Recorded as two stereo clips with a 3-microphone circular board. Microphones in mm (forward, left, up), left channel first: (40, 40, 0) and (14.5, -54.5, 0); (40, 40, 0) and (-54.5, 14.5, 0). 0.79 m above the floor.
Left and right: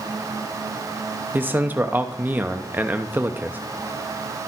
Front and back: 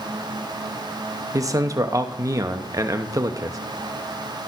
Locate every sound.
1.3 s a man speaking: 160° right, 0.7 m